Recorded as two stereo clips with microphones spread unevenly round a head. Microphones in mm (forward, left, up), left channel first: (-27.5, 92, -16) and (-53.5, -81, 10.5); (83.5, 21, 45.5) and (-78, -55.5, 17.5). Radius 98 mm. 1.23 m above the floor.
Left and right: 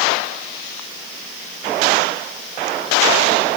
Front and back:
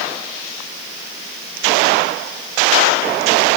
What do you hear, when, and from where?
Only background noise.